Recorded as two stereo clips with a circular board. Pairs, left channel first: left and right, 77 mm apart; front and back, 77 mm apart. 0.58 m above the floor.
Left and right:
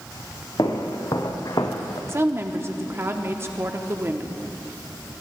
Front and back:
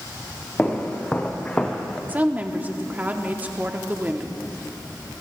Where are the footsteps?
65° left, 2.0 m; by 2.0 s 75° left, 1.0 m.